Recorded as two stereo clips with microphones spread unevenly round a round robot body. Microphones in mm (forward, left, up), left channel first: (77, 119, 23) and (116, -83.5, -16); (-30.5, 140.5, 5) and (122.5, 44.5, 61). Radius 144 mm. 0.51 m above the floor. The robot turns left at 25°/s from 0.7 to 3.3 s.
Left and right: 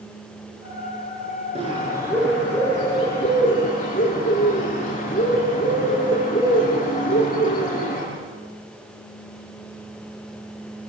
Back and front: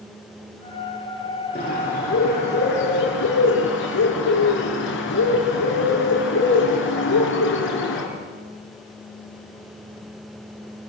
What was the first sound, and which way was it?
A bird, 150° right.